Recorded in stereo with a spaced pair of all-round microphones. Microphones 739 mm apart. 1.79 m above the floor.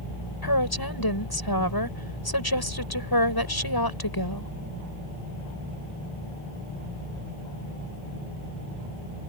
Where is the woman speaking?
30° left (ahead or behind).